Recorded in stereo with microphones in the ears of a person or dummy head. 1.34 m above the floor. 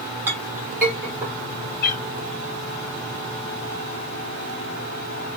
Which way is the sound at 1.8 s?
45° left (ahead or behind).